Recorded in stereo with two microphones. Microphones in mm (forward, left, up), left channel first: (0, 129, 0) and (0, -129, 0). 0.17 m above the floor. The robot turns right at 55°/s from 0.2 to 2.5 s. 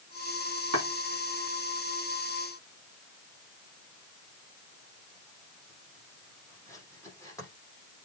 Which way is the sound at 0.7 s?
80° right.